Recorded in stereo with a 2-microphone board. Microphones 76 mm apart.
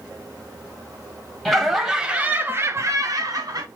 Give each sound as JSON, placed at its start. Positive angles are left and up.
{"t": 1.4, "sound": "laughter", "side_deg": 5, "distance_m": 1.0}